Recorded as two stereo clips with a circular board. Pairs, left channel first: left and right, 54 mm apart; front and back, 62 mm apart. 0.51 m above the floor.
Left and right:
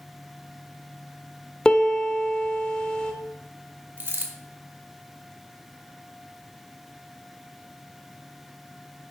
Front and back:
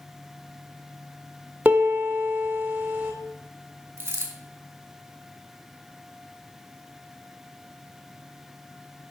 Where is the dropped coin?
130° right, 1.8 m.